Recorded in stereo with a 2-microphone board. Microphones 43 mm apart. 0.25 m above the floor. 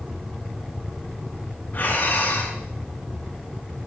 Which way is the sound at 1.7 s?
45° left (ahead or behind).